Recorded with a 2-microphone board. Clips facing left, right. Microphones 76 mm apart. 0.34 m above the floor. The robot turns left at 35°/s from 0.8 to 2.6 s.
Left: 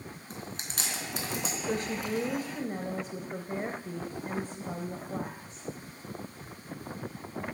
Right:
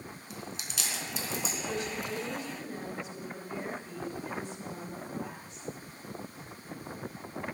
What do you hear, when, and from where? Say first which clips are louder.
0.3 s chewing: left 1 dB; 40° left (ahead or behind), 4 m; by 1.5 s 65° left (ahead or behind), 4 m
1.6 s a woman speaking: left 6 dB; 105° left, 1.4 m; by 5.7 s 75° left, 1.4 m